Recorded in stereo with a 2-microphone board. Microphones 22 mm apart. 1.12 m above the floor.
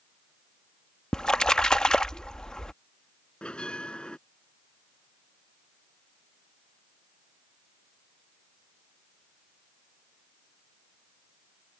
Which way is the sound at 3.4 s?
60° left (ahead or behind).